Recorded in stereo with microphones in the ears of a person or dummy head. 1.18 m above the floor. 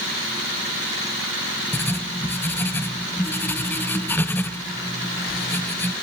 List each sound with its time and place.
1.7 s writing: 10° left (ahead or behind), 0.6 m